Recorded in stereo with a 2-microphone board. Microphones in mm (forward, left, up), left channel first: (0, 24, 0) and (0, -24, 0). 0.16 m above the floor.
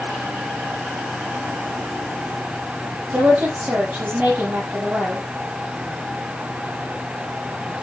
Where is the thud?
No thud in this recording.